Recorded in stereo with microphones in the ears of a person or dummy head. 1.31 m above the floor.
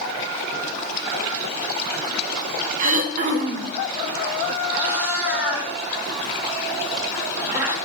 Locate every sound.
2.8 s throat clearing: 45° right (ahead or behind), 0.7 m
4.7 s a cat meowing: 10° right (ahead or behind), 0.9 m